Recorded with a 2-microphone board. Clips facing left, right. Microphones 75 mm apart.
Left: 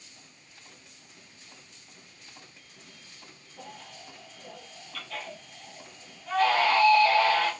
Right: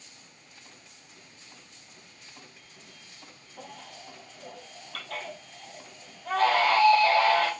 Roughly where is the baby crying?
Right.